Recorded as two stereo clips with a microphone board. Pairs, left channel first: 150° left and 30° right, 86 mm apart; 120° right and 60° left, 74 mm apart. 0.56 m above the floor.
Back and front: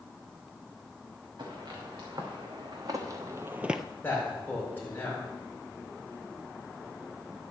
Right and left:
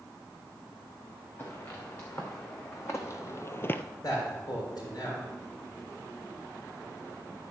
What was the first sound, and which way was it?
Footsteps, 70° right.